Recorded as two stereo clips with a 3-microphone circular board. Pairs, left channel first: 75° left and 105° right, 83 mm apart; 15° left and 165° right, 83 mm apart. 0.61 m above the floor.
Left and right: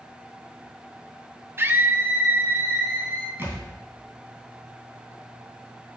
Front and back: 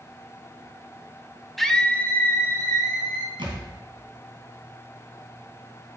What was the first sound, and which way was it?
A scream, 75° right.